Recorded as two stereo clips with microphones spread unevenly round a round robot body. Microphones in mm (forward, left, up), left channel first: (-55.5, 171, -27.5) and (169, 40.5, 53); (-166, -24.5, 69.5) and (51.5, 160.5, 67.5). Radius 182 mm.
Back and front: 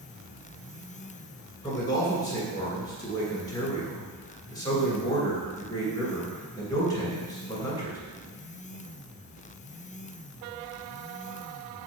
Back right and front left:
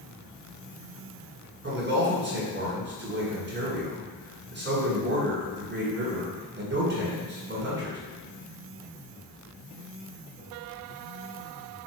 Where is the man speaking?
85° left, 2 m.